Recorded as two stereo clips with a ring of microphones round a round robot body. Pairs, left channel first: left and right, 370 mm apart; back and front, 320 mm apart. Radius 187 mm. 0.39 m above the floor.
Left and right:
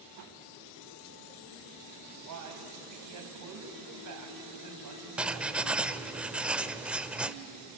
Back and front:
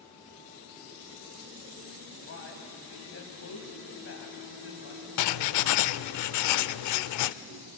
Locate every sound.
2.3 s a man speaking: 125° right, 3.5 m
5.2 s writing: 175° right, 0.6 m